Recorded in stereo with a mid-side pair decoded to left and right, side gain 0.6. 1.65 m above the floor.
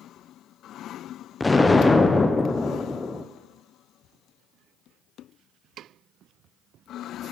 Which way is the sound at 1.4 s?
15° left.